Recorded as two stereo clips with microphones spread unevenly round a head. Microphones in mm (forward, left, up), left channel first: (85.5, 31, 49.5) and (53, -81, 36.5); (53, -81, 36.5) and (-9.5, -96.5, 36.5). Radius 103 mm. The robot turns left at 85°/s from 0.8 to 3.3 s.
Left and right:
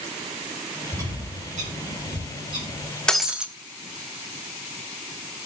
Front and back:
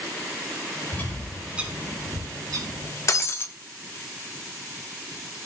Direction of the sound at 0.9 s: 40° right.